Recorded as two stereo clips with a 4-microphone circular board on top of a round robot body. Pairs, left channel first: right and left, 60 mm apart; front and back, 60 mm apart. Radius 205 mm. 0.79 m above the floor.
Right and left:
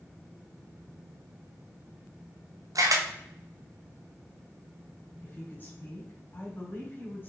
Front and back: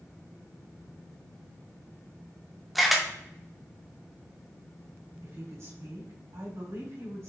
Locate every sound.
2.8 s a camera shutter: 90° left, 1.3 m
5.2 s a woman speaking: 150° right, 3.5 m